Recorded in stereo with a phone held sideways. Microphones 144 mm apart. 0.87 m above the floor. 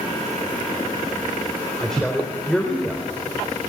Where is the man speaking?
5° left (ahead or behind), 4 m.